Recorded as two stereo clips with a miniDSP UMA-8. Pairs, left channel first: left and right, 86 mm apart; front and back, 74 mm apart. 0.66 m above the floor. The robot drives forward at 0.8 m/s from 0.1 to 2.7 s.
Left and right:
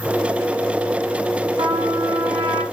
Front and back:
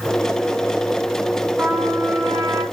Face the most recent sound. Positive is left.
turn(degrees=-135)